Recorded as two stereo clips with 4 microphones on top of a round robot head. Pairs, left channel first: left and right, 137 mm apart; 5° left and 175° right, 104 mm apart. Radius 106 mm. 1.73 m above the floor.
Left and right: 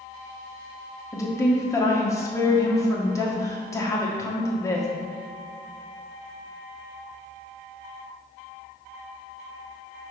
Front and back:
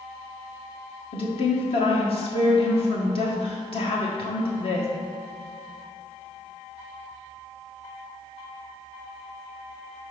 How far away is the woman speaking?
About 1.2 m.